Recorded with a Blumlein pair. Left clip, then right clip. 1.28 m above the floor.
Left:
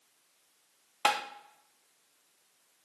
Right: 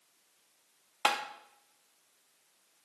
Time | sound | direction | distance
1.1 | tapping | straight ahead | 0.5 m